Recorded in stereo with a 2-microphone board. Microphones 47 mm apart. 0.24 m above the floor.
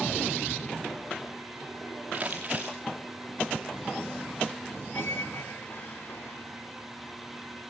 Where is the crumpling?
25° right (ahead or behind), 5 m.